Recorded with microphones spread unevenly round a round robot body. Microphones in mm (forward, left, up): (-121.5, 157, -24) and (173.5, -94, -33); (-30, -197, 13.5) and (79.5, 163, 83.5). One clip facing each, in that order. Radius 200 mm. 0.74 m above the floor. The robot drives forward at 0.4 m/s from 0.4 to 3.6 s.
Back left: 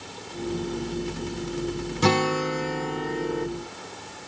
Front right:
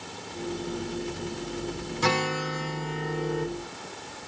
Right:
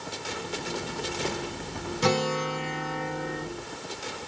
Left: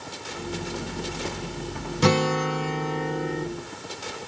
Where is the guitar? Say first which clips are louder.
Back left 6 dB, left 4 dB; 100° left, 0.9 m; by 3.5 s 130° left, 1.2 m.